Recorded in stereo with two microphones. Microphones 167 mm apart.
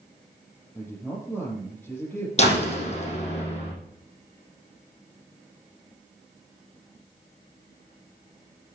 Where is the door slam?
40° left (ahead or behind), 5 m.